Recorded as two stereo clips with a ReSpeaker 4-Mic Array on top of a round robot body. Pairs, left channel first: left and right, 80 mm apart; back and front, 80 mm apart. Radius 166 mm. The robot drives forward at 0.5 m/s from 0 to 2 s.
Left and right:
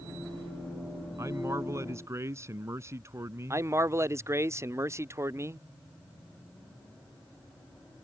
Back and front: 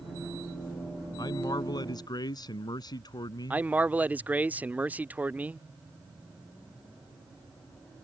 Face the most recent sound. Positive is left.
turn(degrees=-60)